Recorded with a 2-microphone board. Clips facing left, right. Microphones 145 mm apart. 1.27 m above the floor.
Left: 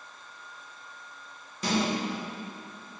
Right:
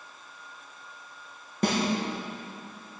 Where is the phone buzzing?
No phone buzzing in this recording.